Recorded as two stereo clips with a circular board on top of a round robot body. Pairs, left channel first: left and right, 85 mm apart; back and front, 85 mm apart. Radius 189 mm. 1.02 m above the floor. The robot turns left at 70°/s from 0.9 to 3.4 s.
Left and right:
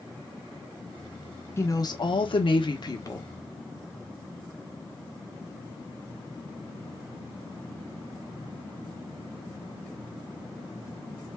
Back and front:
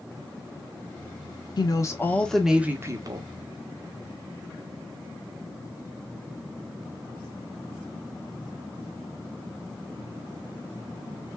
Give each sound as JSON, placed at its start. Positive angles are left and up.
{"t": 1.6, "sound": "a woman speaking", "azimuth_deg": 150, "distance_m": 1.3}